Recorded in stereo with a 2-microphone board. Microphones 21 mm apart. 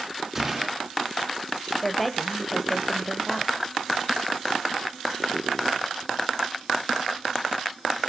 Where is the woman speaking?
10° left (ahead or behind), 0.9 m.